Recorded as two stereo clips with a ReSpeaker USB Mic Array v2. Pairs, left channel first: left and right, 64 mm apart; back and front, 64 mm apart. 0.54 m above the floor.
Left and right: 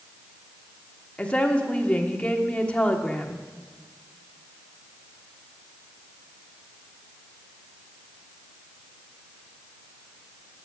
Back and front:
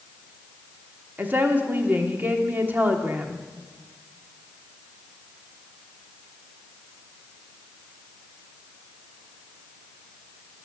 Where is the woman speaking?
30° left, 1.3 m.